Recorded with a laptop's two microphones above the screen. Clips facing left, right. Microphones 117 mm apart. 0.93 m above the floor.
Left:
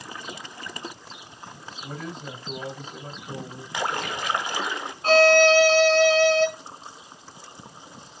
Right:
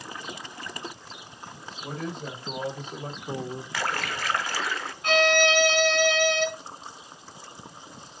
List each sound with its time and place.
1.8 s a man speaking: 65° right (ahead or behind), 4 m
3.7 s a splash: 20° left (ahead or behind), 0.6 m
5.0 s a violin: 35° left (ahead or behind), 0.8 m